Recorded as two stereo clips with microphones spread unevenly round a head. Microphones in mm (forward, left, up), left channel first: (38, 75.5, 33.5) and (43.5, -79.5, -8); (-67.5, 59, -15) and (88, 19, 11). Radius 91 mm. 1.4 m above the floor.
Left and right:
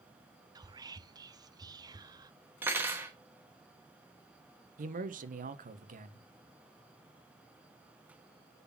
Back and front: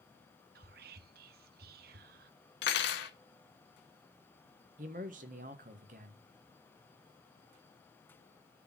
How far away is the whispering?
About 0.7 m.